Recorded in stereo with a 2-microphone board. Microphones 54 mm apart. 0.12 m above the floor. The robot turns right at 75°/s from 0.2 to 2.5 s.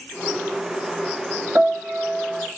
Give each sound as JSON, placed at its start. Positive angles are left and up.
{"t": 1.6, "sound": "a piano", "azimuth_deg": -110, "distance_m": 1.0}